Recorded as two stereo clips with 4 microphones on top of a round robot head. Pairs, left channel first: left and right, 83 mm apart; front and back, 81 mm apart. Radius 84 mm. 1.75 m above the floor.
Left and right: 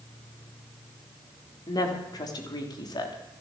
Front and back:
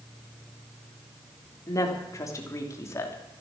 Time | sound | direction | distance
1.7 | a woman speaking | 50° left | 3.5 m